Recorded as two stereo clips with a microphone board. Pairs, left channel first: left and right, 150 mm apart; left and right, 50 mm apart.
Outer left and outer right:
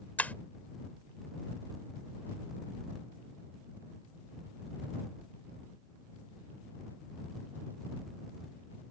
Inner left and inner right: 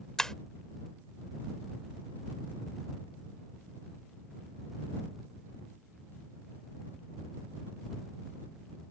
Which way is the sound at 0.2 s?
10° left (ahead or behind).